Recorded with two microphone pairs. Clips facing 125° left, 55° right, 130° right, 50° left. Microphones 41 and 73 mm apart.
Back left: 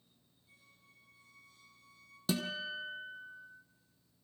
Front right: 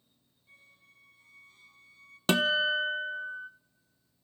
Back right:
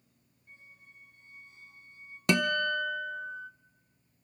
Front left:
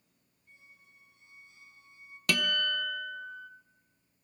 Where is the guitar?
65° right, 0.5 m.